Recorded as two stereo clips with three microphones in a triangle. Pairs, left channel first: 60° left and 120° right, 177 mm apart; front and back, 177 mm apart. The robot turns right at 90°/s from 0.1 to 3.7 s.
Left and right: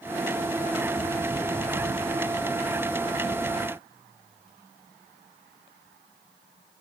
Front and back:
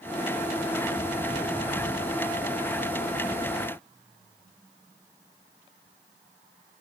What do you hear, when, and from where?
Only background noise.